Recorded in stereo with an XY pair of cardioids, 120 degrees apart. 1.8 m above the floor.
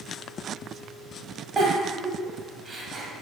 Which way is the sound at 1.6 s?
30° right.